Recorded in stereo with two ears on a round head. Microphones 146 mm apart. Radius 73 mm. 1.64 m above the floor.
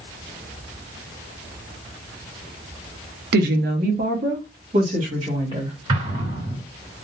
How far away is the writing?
I don't hear writing.